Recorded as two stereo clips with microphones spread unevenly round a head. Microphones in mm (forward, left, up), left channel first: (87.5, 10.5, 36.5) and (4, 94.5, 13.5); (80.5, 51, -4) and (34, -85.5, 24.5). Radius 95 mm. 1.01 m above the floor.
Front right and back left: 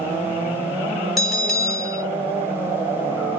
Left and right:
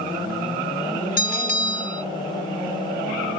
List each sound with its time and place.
1.2 s a bell: 40° left, 1.8 m